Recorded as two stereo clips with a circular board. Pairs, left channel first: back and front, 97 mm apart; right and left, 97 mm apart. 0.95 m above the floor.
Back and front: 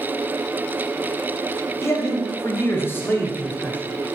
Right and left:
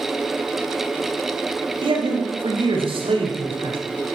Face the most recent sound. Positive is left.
turn(degrees=105)